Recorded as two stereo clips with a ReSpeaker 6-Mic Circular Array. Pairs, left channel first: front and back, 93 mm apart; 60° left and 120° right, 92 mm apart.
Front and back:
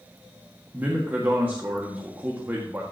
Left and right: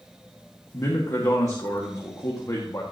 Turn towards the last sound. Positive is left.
turn(degrees=115)